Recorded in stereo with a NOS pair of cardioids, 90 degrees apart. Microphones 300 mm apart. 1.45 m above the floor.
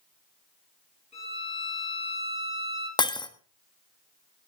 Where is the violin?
20° left, 7.5 m.